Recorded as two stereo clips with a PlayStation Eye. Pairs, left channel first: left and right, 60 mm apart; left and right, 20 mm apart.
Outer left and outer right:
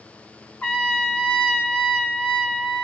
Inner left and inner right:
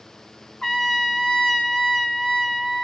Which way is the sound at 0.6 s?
25° left (ahead or behind).